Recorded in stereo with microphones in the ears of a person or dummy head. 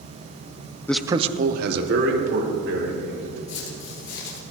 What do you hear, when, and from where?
0.9 s a man speaking: 15° left (ahead or behind), 0.5 m; by 3.4 s 75° right (ahead or behind), 3.5 m
3.5 s footsteps: 55° left (ahead or behind), 3 m